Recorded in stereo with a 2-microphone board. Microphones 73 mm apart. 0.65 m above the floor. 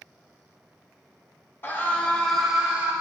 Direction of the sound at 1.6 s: 30° left (ahead or behind).